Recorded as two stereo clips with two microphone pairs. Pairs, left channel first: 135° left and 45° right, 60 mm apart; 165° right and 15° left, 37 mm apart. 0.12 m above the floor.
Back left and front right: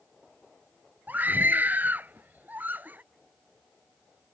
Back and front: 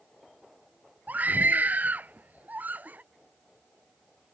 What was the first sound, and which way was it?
A scream, straight ahead.